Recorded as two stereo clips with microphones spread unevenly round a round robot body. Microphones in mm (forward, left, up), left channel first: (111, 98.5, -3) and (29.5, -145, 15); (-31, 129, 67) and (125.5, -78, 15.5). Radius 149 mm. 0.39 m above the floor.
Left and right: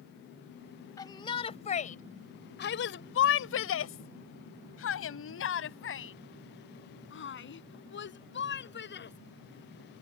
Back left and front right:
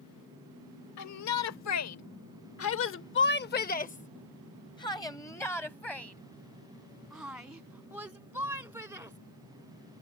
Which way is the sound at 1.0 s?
145° left.